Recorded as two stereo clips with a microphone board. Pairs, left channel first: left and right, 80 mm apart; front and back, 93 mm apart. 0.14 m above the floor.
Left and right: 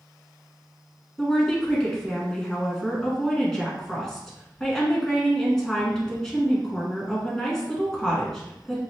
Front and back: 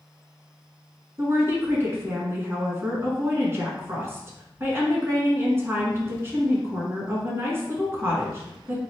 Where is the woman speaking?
165° left, 1.3 m.